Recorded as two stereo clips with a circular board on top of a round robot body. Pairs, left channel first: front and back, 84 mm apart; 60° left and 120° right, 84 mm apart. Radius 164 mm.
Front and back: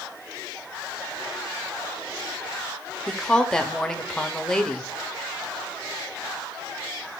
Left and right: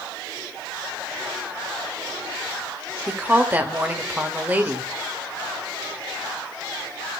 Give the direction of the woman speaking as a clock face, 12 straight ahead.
2 o'clock.